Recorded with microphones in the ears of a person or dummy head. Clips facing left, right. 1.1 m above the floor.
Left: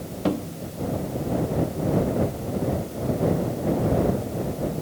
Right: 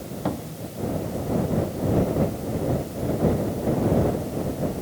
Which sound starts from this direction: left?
A cupboard door, at 0.2 s.